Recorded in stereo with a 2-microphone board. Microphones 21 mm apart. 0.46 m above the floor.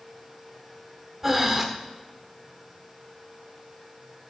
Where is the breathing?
15° right (ahead or behind), 0.6 m.